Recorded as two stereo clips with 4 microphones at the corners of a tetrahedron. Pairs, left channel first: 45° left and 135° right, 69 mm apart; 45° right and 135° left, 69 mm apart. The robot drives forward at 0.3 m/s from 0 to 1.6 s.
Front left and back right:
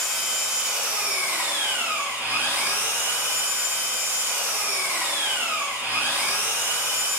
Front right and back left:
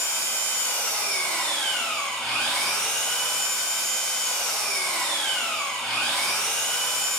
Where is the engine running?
45° right, 0.8 m; by 7.2 s 115° right, 0.7 m.